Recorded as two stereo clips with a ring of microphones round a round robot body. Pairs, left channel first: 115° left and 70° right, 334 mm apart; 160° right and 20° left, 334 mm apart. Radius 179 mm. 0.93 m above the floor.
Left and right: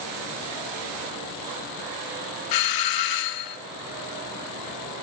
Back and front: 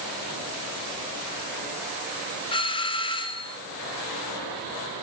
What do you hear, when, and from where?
2.5 s a doorbell: 125° left, 2.5 m